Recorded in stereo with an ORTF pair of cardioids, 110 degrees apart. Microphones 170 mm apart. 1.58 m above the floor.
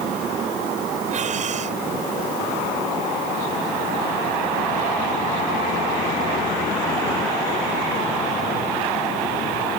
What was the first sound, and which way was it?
Breathing, 45° right.